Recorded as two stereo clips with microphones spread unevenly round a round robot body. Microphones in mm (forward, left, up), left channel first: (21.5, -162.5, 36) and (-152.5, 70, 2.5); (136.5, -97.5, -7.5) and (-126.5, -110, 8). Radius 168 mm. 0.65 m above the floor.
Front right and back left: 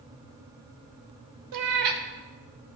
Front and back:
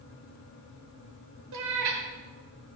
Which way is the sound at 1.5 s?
145° left.